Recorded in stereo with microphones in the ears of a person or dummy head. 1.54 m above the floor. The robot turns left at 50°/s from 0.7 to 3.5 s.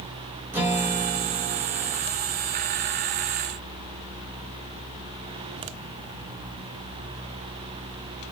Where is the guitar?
15° right, 0.7 m; by 2.0 s 80° right, 0.7 m.